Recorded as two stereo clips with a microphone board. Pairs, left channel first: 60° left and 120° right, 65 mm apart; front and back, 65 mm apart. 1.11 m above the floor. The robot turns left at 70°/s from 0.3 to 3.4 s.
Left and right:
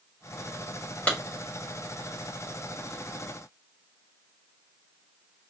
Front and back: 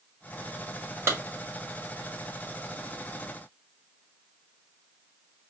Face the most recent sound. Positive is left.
turn(degrees=-30)